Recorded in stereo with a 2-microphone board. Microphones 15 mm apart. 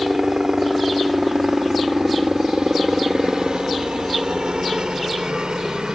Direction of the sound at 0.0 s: 35° right (ahead or behind).